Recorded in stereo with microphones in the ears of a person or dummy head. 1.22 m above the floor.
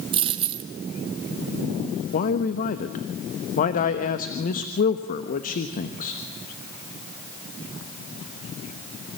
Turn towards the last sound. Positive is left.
turn(degrees=45)  # may be behind; listen again after turning